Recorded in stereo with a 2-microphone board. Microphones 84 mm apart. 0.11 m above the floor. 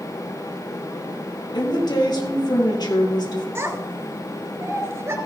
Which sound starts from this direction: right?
A child speaking, at 3.5 s.